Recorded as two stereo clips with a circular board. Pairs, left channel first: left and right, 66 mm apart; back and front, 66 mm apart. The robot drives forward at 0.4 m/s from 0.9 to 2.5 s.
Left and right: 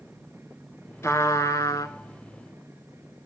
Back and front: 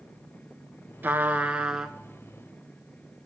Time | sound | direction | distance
1.0 | a trumpet | 55° left | 0.8 m